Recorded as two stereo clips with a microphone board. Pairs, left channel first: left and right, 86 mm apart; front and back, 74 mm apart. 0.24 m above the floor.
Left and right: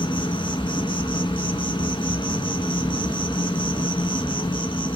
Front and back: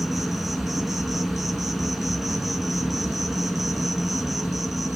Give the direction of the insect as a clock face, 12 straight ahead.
9 o'clock.